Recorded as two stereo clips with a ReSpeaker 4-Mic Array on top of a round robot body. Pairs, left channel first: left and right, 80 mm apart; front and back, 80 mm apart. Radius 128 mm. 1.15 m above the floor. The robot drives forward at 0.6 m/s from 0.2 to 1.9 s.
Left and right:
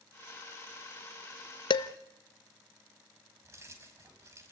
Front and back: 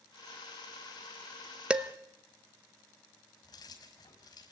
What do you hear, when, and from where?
1.7 s dishes clattering: 105° left, 1.0 m; by 1.9 s 110° left, 1.0 m
3.4 s keys jangling: 35° right, 5 m